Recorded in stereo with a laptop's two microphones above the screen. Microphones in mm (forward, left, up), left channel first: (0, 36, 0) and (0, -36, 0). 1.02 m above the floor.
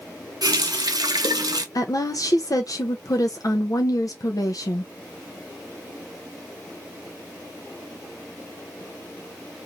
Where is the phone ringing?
I don't hear a phone ringing.